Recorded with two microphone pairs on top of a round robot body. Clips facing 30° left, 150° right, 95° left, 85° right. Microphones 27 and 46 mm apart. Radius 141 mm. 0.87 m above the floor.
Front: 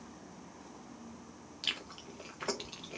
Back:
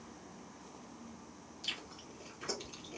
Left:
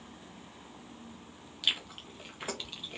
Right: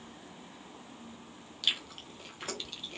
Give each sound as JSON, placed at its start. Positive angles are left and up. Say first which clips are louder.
{"t": 1.6, "sound": "chewing", "louder": "front 5 dB, left 1 dB", "azimuth_deg": 30, "distance_m": 1.5}